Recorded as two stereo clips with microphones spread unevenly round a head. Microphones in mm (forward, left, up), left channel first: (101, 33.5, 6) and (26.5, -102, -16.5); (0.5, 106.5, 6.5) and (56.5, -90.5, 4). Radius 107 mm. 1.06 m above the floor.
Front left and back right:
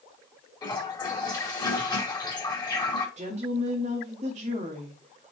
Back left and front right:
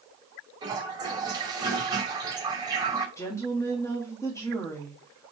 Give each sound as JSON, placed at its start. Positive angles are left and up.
{"t": 0.6, "sound": "a toilet flushing", "azimuth_deg": -5, "distance_m": 2.0}
{"t": 3.2, "sound": "a woman speaking", "azimuth_deg": -175, "distance_m": 1.8}